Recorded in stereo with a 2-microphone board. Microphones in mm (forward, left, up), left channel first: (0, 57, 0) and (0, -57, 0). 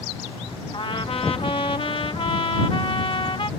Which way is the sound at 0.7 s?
50° left (ahead or behind).